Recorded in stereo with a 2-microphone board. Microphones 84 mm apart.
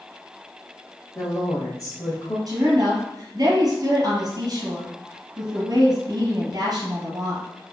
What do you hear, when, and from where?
1.1 s a woman speaking: 40° left (ahead or behind), 1.4 m
2.5 s a woman speaking: 45° right (ahead or behind), 1.6 m